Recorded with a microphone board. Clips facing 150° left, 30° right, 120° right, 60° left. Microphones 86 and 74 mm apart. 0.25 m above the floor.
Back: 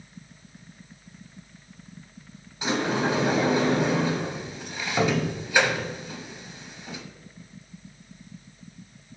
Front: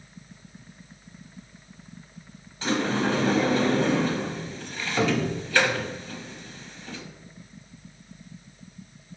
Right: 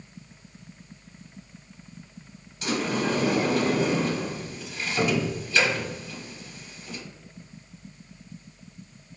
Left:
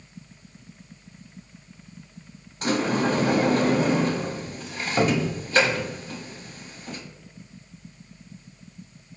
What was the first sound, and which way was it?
A sliding door, 80° left.